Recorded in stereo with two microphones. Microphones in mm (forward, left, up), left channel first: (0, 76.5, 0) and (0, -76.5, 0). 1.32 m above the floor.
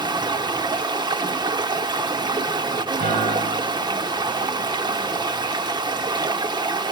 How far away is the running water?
About 1.0 m.